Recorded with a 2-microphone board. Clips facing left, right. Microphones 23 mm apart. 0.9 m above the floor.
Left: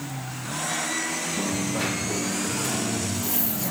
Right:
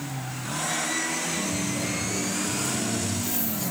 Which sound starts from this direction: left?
A dropped coin, at 1.4 s.